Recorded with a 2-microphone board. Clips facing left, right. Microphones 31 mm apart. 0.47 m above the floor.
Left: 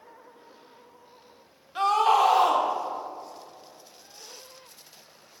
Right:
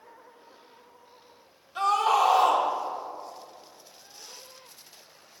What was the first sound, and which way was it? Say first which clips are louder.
A scream: left 2 dB; 25° left (ahead or behind).